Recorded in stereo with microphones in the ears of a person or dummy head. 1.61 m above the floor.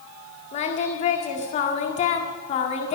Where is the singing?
40° left (ahead or behind), 1.8 m.